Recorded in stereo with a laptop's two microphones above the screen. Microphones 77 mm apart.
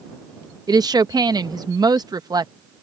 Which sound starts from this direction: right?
A woman speaking, at 0.7 s.